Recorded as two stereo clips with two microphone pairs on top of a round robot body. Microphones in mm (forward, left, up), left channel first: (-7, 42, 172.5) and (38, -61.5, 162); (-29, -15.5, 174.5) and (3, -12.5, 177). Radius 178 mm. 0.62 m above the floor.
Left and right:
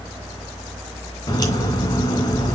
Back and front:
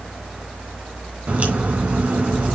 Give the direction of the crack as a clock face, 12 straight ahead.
10 o'clock.